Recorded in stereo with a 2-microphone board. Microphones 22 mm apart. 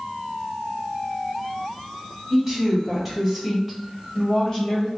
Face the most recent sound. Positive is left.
turn(degrees=35)  # may be behind; listen again after turning